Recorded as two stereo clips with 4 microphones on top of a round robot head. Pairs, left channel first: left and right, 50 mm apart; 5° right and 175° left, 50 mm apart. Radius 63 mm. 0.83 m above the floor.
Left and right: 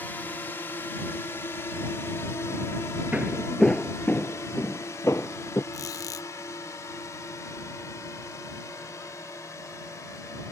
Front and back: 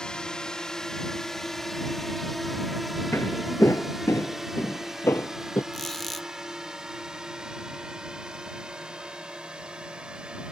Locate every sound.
0.0 s a drone: 65° left; by 10.5 s 105° left
3.1 s footsteps: 30° right; by 5.6 s 40° left
5.7 s a squeak: 80° left